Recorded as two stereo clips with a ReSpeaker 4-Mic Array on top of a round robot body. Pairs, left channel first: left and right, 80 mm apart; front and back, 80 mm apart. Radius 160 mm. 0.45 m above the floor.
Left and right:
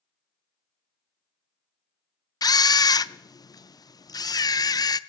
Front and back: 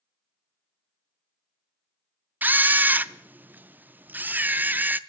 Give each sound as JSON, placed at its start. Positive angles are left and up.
{"t": 2.4, "sound": "a camera shutter", "azimuth_deg": 115, "distance_m": 0.6}